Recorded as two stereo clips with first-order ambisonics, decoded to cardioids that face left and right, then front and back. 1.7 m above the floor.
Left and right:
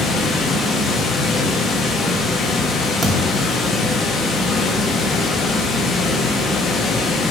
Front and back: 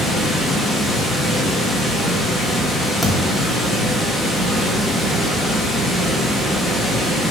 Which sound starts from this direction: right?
A thud, at 3.0 s.